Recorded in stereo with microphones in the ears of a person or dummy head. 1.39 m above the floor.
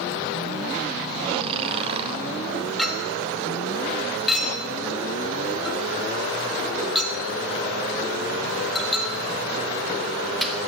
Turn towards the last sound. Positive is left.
turn(degrees=5)  # may be behind; listen again after turning